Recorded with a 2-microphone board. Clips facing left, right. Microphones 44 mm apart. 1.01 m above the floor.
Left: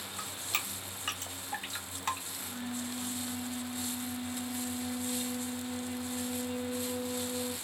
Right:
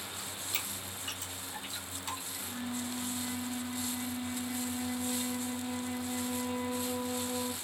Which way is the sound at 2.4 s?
30° right (ahead or behind).